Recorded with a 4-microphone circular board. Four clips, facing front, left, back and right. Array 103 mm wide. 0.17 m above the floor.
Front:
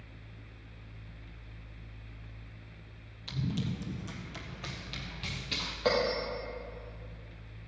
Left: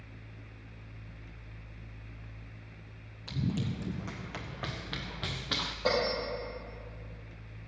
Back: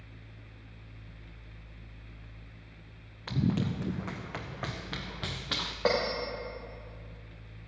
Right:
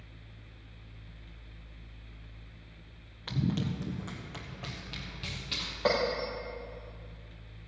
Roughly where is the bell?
Behind.